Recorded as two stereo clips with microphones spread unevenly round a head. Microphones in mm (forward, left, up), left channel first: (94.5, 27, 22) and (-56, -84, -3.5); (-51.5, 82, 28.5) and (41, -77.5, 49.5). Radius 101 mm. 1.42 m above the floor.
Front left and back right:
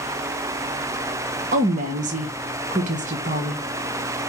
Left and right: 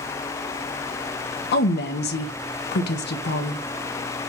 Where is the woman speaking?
160° left, 1.1 m.